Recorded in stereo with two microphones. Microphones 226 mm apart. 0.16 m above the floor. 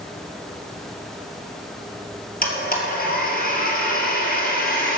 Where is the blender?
40° left (ahead or behind), 2 m.